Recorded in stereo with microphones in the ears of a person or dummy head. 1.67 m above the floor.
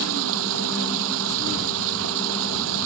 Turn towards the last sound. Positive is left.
turn(degrees=-75)  # may be behind; listen again after turning